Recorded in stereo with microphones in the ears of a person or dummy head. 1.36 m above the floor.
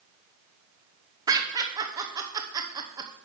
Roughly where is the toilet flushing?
I don't hear a toilet flushing.